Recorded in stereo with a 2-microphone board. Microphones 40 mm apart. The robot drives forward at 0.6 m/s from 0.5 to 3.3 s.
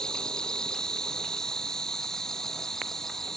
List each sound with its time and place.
0.0 s an insect: 20° left (ahead or behind); by 3.4 s 10° left (ahead or behind)